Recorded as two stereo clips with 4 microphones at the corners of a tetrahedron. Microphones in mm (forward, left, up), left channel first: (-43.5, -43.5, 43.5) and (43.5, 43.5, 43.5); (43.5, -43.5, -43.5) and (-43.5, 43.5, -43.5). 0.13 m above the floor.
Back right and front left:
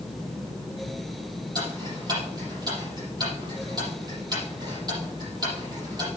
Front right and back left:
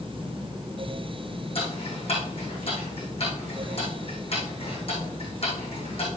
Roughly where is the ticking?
Ahead.